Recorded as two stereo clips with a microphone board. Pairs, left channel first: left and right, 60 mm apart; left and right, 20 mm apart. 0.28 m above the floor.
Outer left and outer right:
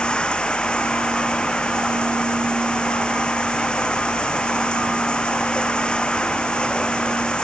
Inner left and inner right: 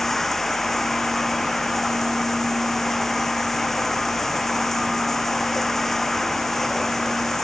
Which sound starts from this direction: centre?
Running water, at 0.0 s.